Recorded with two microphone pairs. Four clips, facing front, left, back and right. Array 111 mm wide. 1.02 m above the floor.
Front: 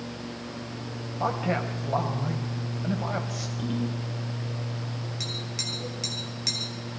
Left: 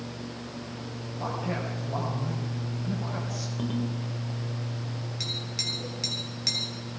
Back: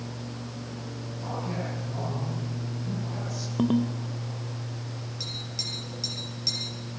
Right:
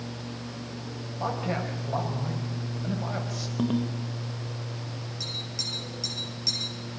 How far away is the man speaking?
About 4 m.